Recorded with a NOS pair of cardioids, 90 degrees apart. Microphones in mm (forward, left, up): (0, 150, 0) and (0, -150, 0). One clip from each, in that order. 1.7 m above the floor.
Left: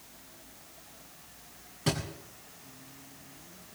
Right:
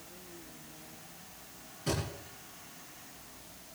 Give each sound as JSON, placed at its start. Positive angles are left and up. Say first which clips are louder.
{"t": 1.9, "sound": "a thud", "louder": "left 2 dB", "azimuth_deg": 65, "distance_m": 6.5}